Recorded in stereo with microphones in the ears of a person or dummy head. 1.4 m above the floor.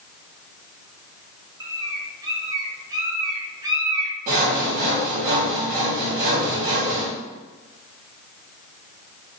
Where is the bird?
20° right (ahead or behind), 0.8 m.